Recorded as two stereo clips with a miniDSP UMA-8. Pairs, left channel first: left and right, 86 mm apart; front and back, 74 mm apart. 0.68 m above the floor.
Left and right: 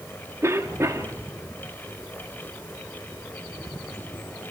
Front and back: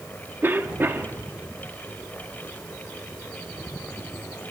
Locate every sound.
0.4 s a cough: 130° right, 1.6 m